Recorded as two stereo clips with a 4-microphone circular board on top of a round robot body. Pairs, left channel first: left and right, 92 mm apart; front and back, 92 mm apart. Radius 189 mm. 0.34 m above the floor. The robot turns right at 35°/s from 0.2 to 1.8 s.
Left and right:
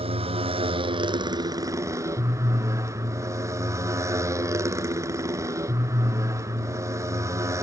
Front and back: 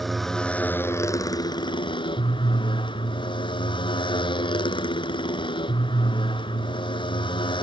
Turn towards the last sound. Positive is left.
turn(degrees=-30)